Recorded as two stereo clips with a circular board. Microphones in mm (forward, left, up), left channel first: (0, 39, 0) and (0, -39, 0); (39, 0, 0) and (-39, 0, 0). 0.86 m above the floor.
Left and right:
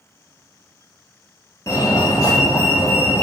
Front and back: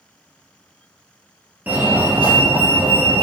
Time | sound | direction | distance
1.7 | a fire alarm | 120° left | 2.5 m